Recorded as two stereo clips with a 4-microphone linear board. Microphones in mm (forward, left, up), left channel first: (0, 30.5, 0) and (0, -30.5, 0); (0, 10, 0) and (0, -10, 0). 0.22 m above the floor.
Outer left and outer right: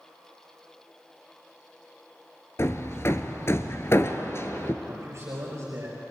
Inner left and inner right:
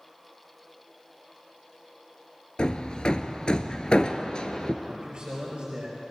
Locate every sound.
2.6 s hammering: 45° left (ahead or behind), 1.1 m
4.8 s a man speaking: 45° right (ahead or behind), 5 m